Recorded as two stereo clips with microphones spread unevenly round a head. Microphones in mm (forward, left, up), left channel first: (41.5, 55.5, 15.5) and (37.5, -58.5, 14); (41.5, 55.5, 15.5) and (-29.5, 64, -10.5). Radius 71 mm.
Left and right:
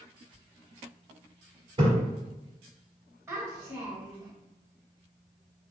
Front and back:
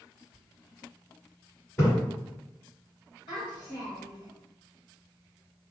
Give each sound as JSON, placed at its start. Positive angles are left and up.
{"t": 1.8, "sound": "a splash", "azimuth_deg": -65, "distance_m": 1.6}
{"t": 3.3, "sound": "a child speaking", "azimuth_deg": -20, "distance_m": 1.2}